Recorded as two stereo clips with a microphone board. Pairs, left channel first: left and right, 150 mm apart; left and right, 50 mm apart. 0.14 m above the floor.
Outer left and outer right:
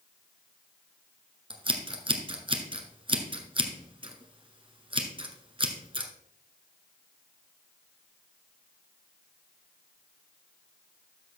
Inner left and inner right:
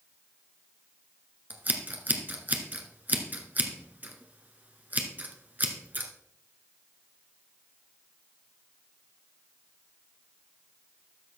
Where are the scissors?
35° right (ahead or behind), 1.2 m.